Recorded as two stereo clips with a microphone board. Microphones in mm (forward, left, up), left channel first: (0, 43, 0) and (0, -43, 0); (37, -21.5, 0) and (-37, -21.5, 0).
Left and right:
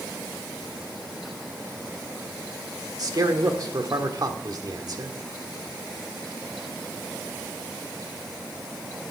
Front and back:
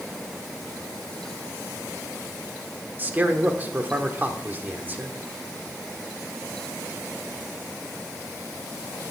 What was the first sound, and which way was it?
A man speaking, 120° right.